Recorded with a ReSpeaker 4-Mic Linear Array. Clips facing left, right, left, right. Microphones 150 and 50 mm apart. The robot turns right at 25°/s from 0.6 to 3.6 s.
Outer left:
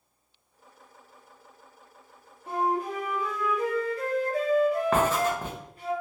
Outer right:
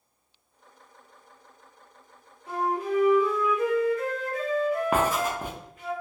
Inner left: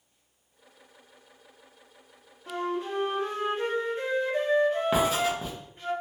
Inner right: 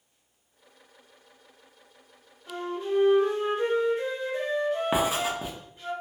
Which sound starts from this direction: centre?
Writing, at 4.9 s.